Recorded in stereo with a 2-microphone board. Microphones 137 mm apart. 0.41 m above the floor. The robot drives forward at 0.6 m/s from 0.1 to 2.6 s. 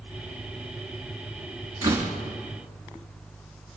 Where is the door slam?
25° right (ahead or behind), 3.5 m; by 2.1 s 30° right (ahead or behind), 3 m.